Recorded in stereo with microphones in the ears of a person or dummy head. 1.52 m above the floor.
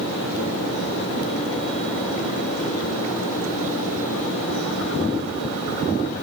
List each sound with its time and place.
Only background noise.